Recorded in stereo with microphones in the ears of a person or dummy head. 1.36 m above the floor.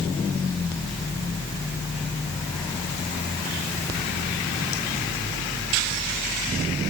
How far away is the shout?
No shout in this recording.